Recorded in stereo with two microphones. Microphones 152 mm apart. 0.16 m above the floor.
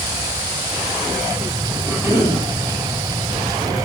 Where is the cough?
15° right (ahead or behind), 4 m.